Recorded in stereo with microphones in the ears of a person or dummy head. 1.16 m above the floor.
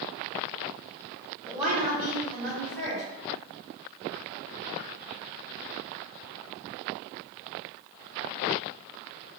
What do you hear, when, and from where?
1.4 s a woman speaking: 25° right (ahead or behind), 1.5 m; by 3.0 s 60° right (ahead or behind), 1.6 m